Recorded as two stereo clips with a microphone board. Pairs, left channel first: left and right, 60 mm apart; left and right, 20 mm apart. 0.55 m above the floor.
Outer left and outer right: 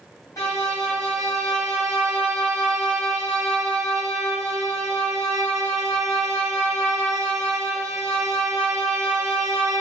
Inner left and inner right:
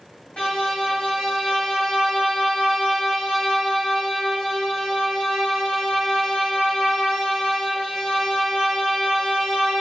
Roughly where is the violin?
Left.